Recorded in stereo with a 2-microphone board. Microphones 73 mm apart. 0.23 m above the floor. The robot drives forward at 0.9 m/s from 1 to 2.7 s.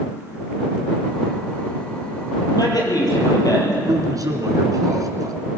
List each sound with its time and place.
2.5 s a man speaking: 70° left (ahead or behind), 6.5 m
3.8 s a man speaking: 60° right (ahead or behind), 2.5 m